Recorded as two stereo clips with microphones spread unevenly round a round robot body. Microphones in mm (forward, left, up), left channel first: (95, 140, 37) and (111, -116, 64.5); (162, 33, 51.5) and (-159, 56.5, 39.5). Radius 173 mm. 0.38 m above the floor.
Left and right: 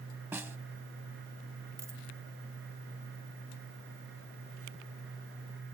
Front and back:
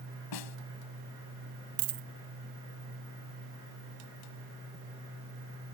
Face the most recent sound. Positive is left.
turn(degrees=-165)